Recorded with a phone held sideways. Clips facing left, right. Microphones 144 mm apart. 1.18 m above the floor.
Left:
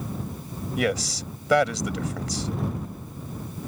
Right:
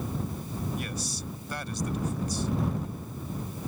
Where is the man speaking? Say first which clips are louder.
Left 10 dB; 80° left.